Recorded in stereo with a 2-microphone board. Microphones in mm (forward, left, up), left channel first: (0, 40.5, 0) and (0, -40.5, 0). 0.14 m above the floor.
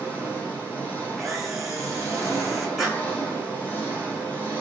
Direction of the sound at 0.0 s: 20° left (ahead or behind).